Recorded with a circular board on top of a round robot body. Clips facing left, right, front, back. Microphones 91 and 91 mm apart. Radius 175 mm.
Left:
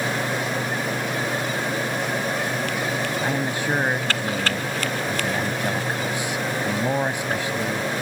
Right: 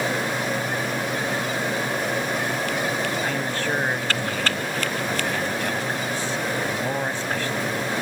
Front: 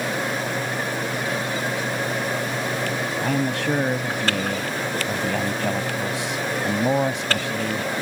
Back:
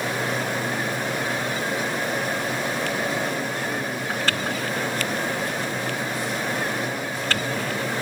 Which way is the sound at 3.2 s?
15° left.